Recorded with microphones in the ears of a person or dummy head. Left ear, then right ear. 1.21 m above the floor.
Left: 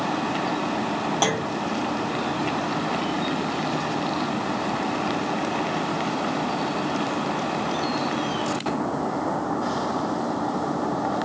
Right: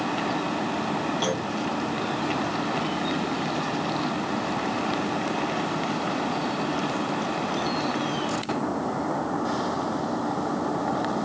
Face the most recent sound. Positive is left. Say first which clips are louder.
# left 3 dB
turn(degrees=30)  # may be behind; listen again after turning